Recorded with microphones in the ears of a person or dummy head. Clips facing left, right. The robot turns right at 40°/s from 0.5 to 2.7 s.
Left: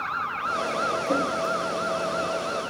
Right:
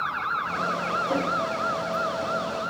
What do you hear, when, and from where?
1.1 s a drawer: 35° left (ahead or behind), 0.9 m; by 1.2 s 30° left (ahead or behind), 0.9 m